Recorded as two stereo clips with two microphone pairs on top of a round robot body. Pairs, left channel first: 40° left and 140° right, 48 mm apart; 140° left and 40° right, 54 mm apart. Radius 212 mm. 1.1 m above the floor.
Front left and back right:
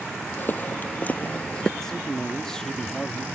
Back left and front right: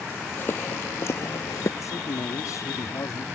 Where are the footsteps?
95° left; by 1.7 s 120° left.